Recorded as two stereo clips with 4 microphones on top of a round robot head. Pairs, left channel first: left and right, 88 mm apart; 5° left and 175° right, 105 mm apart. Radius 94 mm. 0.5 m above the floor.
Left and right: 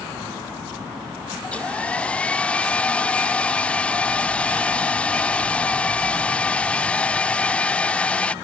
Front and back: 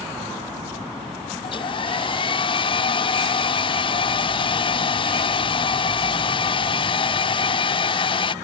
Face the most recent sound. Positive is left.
turn(degrees=15)